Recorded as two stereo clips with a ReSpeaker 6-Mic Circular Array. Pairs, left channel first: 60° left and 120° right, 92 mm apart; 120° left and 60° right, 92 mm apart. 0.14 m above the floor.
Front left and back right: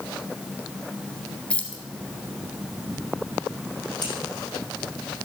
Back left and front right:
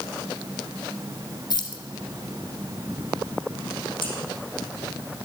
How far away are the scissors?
About 5.5 m.